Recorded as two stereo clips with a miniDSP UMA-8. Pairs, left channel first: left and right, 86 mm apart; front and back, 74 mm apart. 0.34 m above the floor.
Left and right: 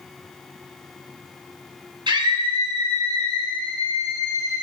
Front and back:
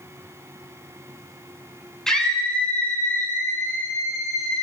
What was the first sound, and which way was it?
A scream, 85° right.